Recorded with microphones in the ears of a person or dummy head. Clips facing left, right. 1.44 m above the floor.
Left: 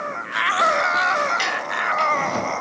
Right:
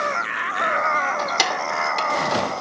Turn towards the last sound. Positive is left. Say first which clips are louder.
# right 1 dB
turn(degrees=-75)  # may be behind; listen again after turning